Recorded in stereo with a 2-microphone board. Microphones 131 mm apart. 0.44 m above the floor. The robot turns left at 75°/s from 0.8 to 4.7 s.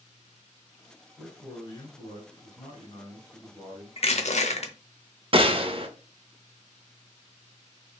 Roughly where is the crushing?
Behind left.